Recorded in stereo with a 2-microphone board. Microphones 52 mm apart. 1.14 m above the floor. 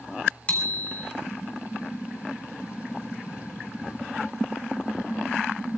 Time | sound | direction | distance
0.5 | a bicycle bell | 25° left (ahead or behind) | 3 m